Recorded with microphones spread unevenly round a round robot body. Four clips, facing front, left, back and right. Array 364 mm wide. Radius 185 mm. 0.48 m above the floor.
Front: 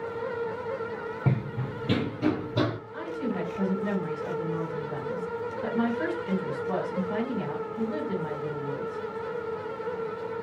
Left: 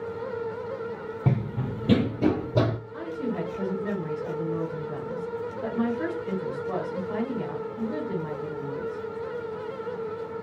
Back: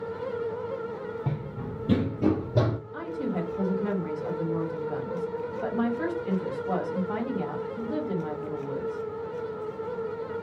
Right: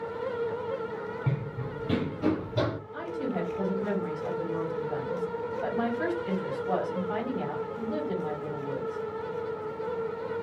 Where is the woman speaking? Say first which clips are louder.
Left 1 dB, even; 160° left, 2.0 m.